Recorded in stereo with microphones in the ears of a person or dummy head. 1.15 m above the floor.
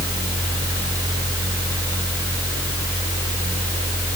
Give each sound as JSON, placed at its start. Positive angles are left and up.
{"t": 0.0, "sound": "a fan", "side_deg": -25, "distance_m": 3.0}